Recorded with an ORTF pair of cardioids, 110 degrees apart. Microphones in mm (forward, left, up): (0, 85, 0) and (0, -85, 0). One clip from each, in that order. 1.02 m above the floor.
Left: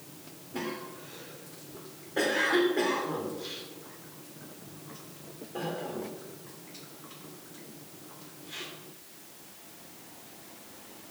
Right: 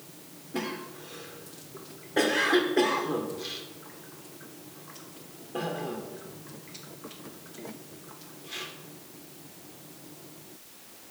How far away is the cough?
About 2.5 m.